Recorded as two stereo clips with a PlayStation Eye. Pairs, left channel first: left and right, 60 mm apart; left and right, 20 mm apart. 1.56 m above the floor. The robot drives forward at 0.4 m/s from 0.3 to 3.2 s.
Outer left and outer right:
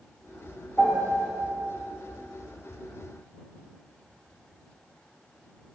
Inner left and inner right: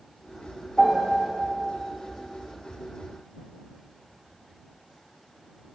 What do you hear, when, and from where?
0.8 s a piano: 30° left (ahead or behind), 2.5 m; by 1.3 s 25° left (ahead or behind), 3 m